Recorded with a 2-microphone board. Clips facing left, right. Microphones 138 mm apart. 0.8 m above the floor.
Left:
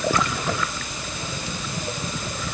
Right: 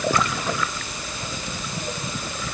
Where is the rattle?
I don't hear a rattle.